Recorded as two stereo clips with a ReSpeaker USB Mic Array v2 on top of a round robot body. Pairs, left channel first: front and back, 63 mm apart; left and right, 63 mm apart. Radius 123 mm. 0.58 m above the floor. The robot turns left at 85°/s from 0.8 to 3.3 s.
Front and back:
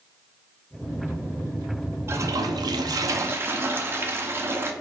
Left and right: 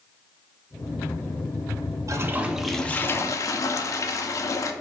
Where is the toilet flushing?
130° right, 0.5 m; by 4.7 s 125° left, 0.5 m.